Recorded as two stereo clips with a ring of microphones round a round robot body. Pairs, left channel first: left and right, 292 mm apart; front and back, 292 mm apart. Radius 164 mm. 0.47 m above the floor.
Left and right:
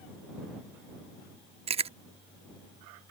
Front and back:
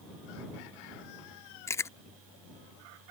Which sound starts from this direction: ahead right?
Chewing, at 1.7 s.